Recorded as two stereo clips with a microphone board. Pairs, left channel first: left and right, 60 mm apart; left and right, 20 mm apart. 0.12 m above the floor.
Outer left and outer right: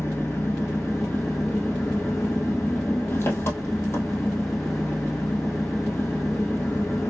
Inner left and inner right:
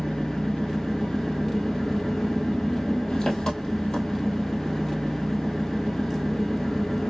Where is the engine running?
45° left (ahead or behind), 1.9 m.